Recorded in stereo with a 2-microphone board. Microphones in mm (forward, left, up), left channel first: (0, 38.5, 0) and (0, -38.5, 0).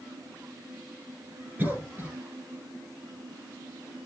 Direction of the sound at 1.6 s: 25° right (ahead or behind).